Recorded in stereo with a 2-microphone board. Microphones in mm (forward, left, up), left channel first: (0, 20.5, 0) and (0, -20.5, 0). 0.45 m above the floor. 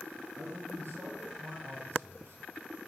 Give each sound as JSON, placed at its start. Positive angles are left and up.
{"t": 0.4, "sound": "a man speaking", "side_deg": -65, "distance_m": 9.0}